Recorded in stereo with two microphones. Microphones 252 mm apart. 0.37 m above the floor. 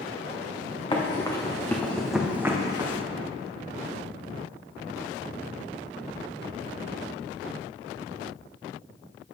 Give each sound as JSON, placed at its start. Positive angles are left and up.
{"t": 0.9, "sound": "running footsteps", "side_deg": 20, "distance_m": 1.5}